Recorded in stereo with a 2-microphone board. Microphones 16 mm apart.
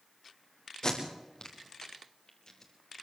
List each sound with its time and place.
0.8 s tape being pulled: 45° left (ahead or behind), 5 m